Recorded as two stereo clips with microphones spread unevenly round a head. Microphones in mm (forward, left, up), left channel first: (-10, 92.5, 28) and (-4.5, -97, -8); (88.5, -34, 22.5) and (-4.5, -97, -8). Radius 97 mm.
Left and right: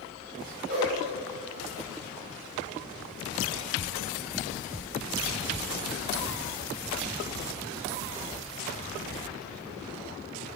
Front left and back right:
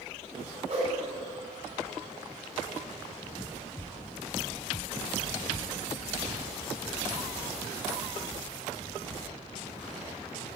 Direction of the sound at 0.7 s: 120° right.